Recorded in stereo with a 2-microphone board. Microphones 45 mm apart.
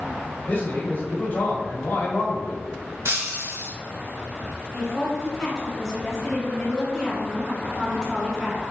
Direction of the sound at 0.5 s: 30° left (ahead or behind).